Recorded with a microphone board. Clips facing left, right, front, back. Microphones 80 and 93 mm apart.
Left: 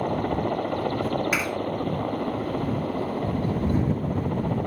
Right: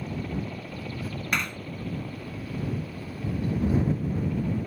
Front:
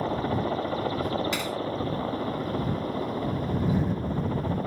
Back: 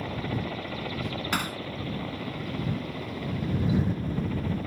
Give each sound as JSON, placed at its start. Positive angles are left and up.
{"t": 0.0, "sound": "a helicopter", "azimuth_deg": 60}
{"t": 1.3, "sound": "hammering", "azimuth_deg": 175}